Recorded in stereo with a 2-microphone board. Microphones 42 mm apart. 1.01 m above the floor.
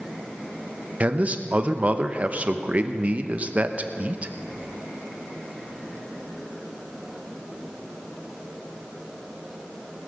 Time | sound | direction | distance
1.0 | a man speaking | 30° right (ahead or behind) | 0.8 m